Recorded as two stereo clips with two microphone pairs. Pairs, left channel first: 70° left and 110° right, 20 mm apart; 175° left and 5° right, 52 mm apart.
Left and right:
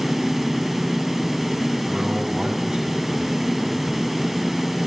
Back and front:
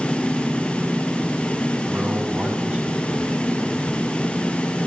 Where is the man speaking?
70° right, 4 m; by 4.1 s 75° right, 5.5 m.